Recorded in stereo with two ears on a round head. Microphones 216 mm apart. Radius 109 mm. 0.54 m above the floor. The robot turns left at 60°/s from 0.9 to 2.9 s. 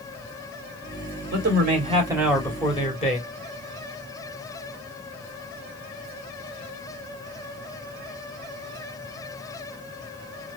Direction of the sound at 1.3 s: 120° right.